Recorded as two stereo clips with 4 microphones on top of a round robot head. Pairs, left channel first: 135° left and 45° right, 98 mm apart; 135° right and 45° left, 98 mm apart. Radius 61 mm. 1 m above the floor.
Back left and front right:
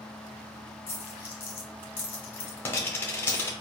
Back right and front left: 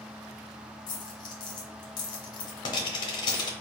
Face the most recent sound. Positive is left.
turn(degrees=-165)